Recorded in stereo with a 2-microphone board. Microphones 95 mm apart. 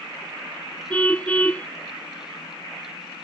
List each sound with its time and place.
0.9 s a car horn: 15° left (ahead or behind)